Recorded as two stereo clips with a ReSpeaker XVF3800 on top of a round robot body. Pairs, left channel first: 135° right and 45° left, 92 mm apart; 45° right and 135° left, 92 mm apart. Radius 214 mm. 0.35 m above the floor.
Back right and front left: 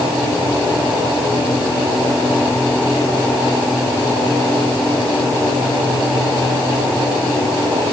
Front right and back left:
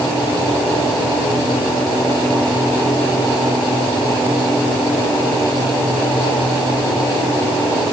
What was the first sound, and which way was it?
Only background noise.